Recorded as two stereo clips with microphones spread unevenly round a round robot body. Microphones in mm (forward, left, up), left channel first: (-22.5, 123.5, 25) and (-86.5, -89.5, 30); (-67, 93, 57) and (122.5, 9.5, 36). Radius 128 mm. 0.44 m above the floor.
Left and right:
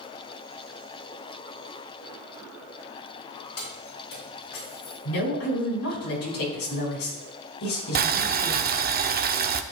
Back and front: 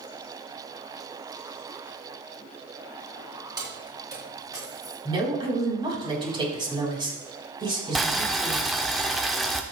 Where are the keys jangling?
45° left, 4 m; by 5.0 s 50° left, 5 m.